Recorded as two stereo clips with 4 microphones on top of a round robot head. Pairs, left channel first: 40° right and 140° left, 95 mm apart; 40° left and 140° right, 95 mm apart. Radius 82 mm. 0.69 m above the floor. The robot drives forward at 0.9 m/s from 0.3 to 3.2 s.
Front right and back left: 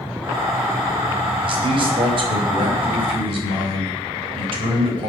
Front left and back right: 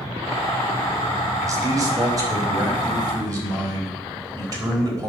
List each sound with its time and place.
1.4 s a man speaking: 170° left, 3.5 m